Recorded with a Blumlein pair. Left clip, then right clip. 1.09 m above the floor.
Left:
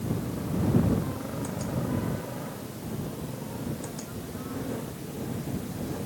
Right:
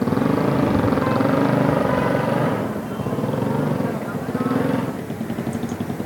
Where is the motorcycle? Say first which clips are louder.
Right 15 dB; 40° right; by 6.1 s 35° right.